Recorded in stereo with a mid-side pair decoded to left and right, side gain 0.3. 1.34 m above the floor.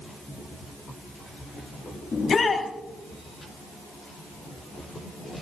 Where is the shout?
55° left, 7 m.